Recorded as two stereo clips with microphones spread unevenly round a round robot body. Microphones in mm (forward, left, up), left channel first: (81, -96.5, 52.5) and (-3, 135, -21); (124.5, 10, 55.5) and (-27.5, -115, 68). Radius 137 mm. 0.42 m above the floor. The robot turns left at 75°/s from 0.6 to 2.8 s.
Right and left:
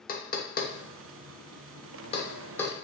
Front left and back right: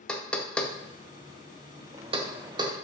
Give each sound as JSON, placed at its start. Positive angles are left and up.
{"t": 0.1, "sound": "knocking", "azimuth_deg": -30, "distance_m": 0.6}